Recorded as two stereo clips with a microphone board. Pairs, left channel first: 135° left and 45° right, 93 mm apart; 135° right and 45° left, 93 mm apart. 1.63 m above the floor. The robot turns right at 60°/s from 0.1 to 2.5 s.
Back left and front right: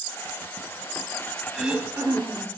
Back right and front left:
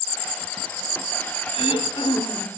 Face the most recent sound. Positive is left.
turn(degrees=-75)